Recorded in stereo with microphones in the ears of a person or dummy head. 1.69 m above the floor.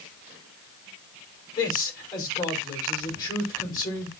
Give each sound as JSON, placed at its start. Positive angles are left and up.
{"t": 1.6, "sound": "a man speaking", "side_deg": 25, "distance_m": 5.0}